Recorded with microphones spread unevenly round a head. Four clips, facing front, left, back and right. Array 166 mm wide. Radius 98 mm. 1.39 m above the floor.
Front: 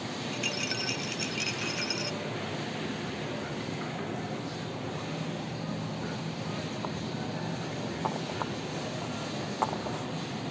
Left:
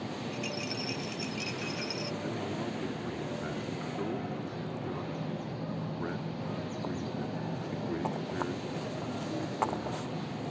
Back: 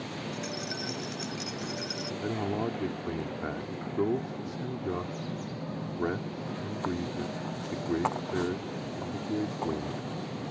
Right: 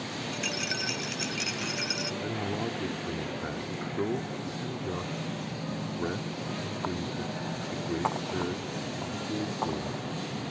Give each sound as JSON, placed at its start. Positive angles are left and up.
{"t": 0.3, "sound": "a rattle", "azimuth_deg": -70}
{"t": 2.2, "sound": "a man speaking", "azimuth_deg": -155}